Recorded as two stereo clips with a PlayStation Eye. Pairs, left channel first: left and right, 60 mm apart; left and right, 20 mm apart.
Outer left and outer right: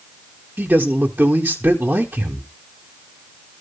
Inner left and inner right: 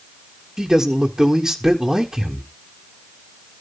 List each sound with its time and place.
0.6 s a man speaking: 25° right (ahead or behind), 1.0 m